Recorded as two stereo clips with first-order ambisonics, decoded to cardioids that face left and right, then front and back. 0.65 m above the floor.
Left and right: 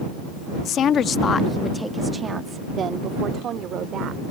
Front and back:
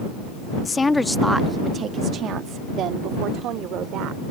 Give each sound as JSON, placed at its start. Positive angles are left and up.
{"t": 0.7, "sound": "a woman speaking", "azimuth_deg": 65}